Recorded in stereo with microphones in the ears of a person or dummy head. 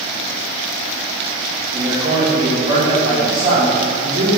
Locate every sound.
1.7 s a man speaking: 35° right (ahead or behind), 1.7 m; by 4.3 s 55° right (ahead or behind), 4 m